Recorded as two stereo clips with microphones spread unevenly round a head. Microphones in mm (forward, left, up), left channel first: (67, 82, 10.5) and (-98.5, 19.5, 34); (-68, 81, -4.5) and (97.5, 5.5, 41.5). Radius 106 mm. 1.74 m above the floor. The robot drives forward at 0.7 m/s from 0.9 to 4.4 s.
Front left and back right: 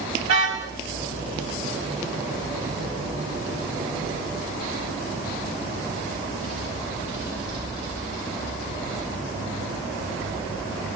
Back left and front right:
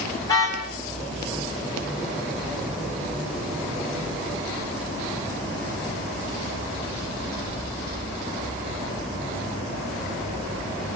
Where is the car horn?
125° right, 5.5 m.